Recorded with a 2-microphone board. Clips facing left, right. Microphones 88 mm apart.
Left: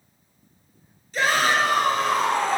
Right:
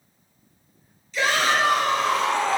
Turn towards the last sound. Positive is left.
turn(degrees=45)  # may be behind; listen again after turning